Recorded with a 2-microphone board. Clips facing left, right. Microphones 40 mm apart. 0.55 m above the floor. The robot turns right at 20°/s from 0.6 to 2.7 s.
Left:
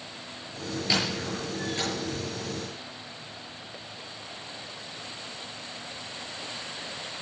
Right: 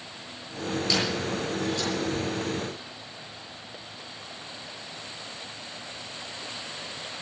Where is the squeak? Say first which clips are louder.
Even; 20° left (ahead or behind), 7.5 m; by 1.9 s 40° left (ahead or behind), 7.5 m.